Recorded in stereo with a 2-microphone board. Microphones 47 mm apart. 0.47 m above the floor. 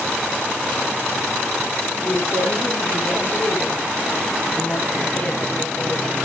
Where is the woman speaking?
45° left (ahead or behind), 5.5 m; by 6.1 s 20° left (ahead or behind), 4.5 m.